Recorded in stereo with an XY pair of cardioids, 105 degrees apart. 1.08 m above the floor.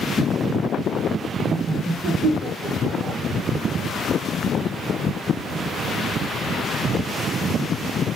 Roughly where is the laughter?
Ahead right.